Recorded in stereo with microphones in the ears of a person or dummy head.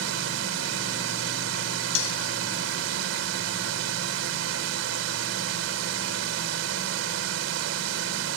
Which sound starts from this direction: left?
Cutlery clinking, at 1.9 s.